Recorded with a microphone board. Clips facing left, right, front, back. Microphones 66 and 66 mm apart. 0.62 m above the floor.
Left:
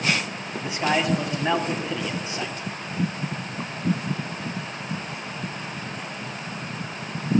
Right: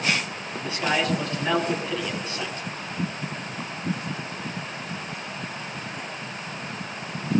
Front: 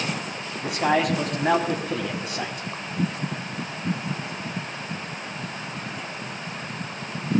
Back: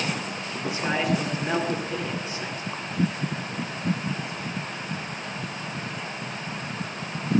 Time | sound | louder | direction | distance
0.6 | a man speaking | left 2 dB, front 4 dB | 15° left | 5.5 m